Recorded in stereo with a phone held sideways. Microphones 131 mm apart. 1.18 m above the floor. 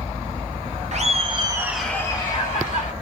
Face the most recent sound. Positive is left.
turn(degrees=55)  # may be behind; listen again after turning